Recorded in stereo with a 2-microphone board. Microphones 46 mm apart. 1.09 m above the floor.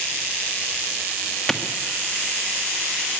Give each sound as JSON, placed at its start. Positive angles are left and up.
{"t": 1.5, "sound": "a clap", "side_deg": 5, "distance_m": 1.8}